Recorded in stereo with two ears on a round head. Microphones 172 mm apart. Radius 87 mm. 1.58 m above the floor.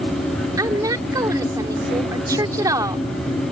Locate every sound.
0.6 s a woman speaking: 20° right (ahead or behind)